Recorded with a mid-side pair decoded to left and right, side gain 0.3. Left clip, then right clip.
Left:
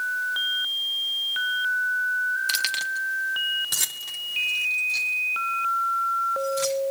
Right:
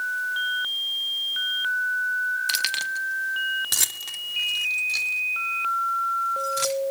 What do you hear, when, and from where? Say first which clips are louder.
2.5 s keys jangling: even; 15° right, 1.0 m; by 6.8 s 70° right, 6 m